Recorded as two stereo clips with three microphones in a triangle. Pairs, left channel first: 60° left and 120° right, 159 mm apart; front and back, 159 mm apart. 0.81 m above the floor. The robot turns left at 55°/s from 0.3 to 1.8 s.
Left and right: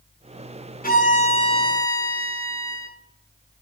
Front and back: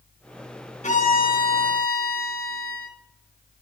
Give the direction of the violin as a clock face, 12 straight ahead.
11 o'clock.